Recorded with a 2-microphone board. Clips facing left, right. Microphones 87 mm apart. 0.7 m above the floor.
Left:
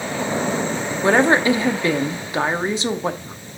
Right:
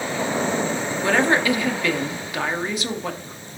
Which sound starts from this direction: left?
A woman speaking, at 1.0 s.